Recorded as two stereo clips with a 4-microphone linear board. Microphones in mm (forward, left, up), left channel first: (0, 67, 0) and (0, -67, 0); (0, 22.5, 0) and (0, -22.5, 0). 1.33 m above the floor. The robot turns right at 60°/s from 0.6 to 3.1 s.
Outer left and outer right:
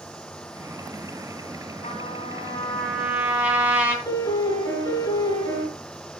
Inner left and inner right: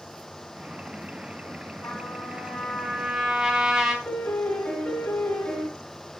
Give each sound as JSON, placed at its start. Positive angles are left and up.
{"t": 1.8, "sound": "a trumpet", "azimuth_deg": 115, "distance_m": 3.0}
{"t": 4.0, "sound": "a piano", "side_deg": 25, "distance_m": 3.0}